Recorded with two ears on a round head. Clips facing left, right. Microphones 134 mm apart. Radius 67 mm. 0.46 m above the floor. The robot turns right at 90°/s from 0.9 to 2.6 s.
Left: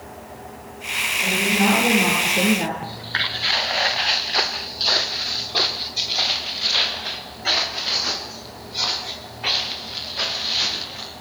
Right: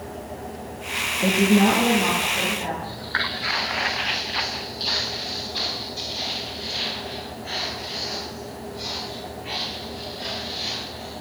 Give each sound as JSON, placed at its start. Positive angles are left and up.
{"t": 1.2, "sound": "a woman speaking", "azimuth_deg": -55, "distance_m": 7.0}
{"t": 2.8, "sound": "footsteps", "side_deg": 15, "distance_m": 2.0}